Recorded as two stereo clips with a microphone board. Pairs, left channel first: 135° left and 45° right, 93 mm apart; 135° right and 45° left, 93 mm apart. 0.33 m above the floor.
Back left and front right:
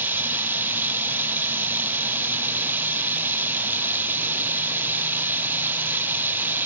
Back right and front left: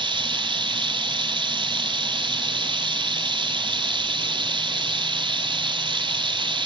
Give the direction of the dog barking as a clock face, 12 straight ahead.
I don't hear a dog barking.